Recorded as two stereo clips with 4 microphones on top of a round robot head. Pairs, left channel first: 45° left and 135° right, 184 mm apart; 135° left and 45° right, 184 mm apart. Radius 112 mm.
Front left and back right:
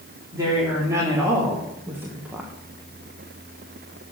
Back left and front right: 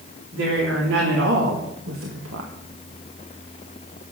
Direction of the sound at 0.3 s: 60° right.